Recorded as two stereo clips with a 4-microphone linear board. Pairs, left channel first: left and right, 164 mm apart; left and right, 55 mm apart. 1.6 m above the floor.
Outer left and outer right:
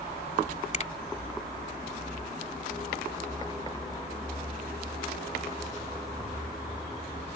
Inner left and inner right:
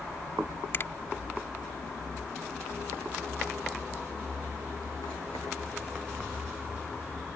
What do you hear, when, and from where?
0.7 s a finger snap: 45° left (ahead or behind)